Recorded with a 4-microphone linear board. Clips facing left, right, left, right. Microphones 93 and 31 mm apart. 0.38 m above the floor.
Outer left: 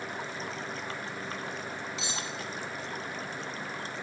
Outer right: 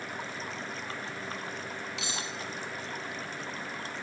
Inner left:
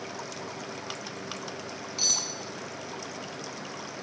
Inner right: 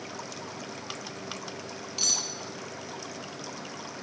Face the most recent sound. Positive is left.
turn(degrees=-75)  # may be behind; listen again after turning